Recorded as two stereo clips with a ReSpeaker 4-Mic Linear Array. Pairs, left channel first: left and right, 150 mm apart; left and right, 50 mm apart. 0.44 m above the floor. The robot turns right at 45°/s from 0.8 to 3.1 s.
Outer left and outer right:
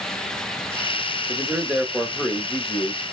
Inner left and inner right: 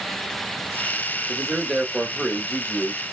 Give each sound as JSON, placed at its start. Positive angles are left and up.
{"t": 1.3, "sound": "a man speaking", "azimuth_deg": -30, "distance_m": 1.0}